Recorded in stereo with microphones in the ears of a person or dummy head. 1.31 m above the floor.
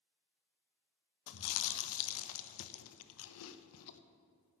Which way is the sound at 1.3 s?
80° left.